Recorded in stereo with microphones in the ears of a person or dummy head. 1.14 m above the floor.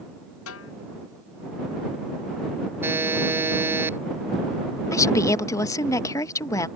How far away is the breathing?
No breathing in this recording.